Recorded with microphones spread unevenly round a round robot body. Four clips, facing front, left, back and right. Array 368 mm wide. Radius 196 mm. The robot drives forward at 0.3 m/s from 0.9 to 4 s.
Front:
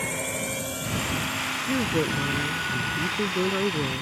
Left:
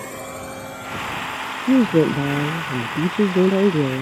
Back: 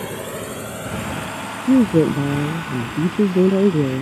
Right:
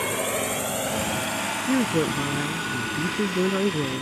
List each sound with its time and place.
0.0 s a drone: 160° right; by 4.0 s 135° right
1.7 s a woman speaking: 155° left; by 4.0 s 160° left